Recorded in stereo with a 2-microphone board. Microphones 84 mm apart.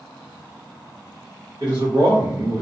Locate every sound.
1.6 s a man speaking: 50° right (ahead or behind), 1.2 m